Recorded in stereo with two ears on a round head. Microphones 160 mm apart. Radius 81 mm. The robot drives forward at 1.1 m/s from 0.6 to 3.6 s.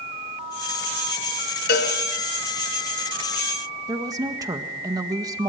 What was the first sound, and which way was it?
A cowbell, 60° left (ahead or behind).